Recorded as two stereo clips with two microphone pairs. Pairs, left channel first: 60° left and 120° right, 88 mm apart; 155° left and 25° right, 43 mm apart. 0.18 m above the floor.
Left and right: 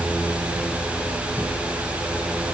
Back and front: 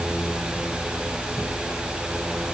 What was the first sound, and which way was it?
Only background noise.